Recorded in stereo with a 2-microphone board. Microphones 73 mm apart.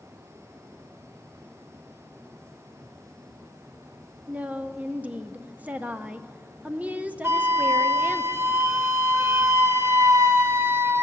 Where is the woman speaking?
20° right (ahead or behind), 0.5 m.